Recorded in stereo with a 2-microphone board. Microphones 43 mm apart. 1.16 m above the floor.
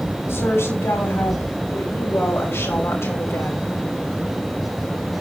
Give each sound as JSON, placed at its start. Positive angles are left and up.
{"t": 0.3, "sound": "a woman speaking", "side_deg": 80, "distance_m": 6.5}